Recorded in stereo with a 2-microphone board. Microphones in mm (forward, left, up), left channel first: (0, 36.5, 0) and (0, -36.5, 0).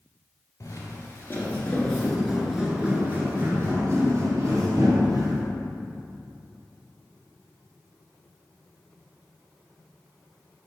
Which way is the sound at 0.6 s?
40° left (ahead or behind).